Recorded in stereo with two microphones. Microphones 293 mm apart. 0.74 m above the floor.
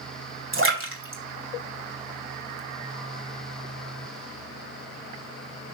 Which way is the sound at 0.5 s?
40° right (ahead or behind).